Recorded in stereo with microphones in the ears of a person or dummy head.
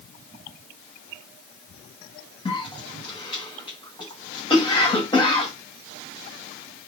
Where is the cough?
20° left (ahead or behind), 1.8 m.